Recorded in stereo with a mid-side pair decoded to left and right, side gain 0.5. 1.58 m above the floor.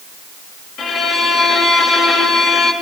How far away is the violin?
About 2 m.